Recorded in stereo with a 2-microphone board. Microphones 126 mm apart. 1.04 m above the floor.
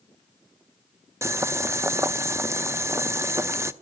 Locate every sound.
1.2 s boiling: 20° right (ahead or behind), 0.6 m